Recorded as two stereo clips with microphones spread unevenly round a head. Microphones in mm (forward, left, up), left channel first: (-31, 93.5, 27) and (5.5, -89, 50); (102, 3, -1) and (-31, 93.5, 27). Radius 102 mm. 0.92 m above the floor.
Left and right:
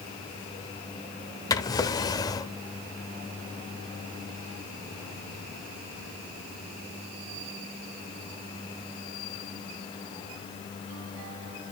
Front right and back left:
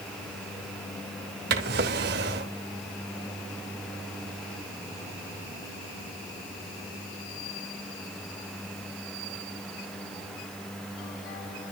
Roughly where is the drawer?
Behind.